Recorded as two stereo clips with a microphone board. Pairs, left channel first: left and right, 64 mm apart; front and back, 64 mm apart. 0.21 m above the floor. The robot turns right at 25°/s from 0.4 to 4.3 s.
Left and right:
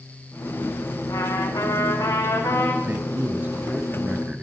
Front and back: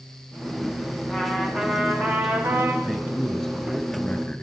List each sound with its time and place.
1.1 s a trumpet: 95° left, 5 m; by 2.7 s 135° left, 5 m
2.8 s a man speaking: 90° right, 1.1 m; by 4.4 s 50° right, 1.1 m